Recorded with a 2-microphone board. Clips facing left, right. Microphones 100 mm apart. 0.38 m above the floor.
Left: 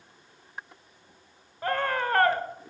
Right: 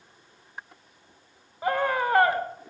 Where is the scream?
10° right (ahead or behind), 1.1 m.